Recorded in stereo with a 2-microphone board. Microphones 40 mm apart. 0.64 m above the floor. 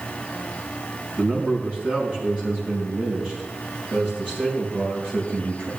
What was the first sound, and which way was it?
A man speaking, 35° right (ahead or behind).